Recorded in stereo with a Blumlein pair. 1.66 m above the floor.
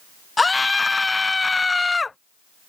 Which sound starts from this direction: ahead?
A scream, at 0.4 s.